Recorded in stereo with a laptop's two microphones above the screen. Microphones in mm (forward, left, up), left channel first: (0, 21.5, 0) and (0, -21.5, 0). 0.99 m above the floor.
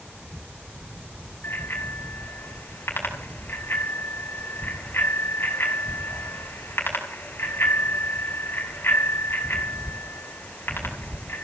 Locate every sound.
1.4 s a bicycle bell: 55° left (ahead or behind), 5 m